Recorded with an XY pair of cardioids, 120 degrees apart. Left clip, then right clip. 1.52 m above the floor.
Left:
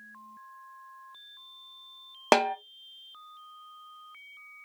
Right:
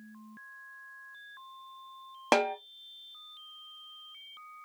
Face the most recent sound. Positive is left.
turn(degrees=35)